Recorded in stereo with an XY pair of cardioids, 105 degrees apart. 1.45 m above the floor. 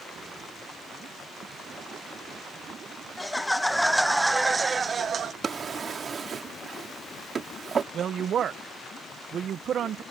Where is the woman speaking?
55° right.